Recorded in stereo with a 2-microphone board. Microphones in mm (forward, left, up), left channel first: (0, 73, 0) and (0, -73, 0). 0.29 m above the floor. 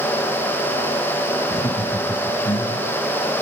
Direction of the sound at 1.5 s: 50° left (ahead or behind).